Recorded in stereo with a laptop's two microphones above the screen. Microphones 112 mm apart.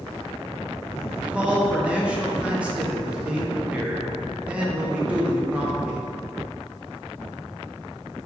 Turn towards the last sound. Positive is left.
turn(degrees=-10)  # may be behind; listen again after turning